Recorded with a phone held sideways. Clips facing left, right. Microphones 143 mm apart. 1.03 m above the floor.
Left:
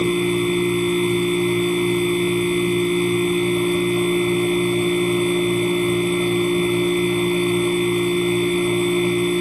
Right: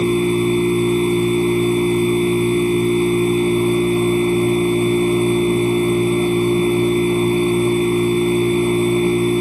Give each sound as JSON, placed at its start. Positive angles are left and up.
{"t": 0.0, "sound": "a machine running", "side_deg": -30, "distance_m": 1.4}